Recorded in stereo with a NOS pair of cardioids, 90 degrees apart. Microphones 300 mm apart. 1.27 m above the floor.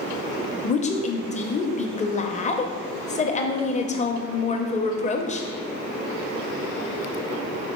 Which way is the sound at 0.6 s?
25° left.